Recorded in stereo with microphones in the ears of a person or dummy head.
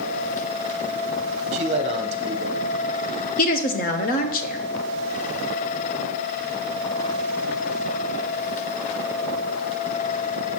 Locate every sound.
1.5 s a man speaking: 30° right (ahead or behind), 0.7 m
3.4 s a woman speaking: 45° left (ahead or behind), 0.5 m